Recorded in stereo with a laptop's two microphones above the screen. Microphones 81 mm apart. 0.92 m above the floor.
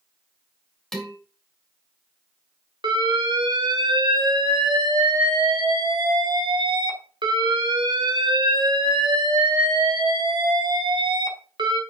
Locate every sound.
0.9 s dishes clattering: 5° left (ahead or behind), 2.0 m
2.8 s an alarm: 70° right (ahead or behind), 1.3 m